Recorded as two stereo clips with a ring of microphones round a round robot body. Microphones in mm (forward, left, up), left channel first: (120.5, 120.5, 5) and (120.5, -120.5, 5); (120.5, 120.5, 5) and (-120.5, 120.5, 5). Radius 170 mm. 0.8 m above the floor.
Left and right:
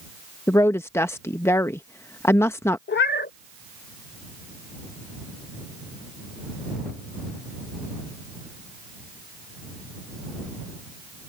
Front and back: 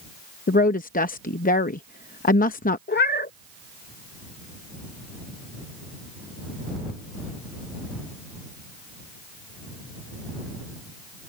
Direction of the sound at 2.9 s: 45° left.